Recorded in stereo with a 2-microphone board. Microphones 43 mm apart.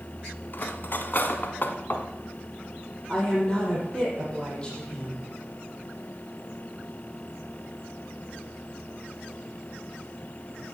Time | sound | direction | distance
0.5 | cutlery clinking | 50° left (ahead or behind) | 1.1 m
3.1 | a woman speaking | 15° left (ahead or behind) | 7 m